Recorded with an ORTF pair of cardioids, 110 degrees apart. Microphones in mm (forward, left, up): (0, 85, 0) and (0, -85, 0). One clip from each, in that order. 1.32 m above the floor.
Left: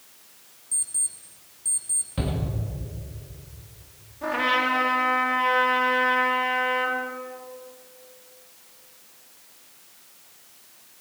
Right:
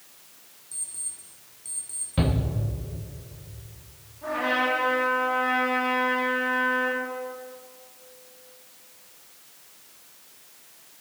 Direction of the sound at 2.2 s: 20° right.